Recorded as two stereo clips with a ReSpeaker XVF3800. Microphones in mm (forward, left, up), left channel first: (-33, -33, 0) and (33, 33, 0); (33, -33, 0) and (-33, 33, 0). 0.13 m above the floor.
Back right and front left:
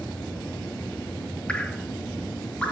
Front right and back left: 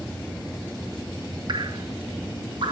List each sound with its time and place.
1.5 s dripping: 150° left, 0.8 m